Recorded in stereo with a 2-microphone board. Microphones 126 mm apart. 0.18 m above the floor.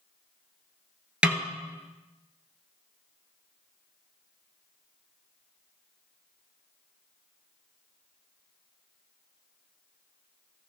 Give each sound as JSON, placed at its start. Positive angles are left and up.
{"t": 1.2, "sound": "a snare drum", "side_deg": -10, "distance_m": 1.1}